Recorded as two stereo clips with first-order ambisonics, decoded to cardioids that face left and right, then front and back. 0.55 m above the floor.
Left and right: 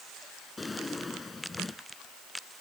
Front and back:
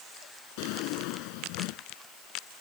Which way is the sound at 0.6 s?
10° left.